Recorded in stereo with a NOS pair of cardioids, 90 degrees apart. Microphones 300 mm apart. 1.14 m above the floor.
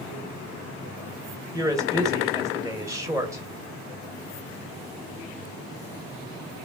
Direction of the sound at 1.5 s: 10° right.